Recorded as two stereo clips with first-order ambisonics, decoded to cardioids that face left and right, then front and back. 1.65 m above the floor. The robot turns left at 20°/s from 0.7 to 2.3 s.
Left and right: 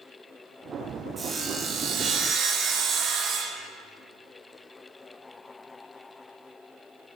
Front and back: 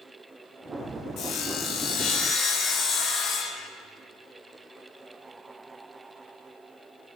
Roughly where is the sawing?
Ahead right.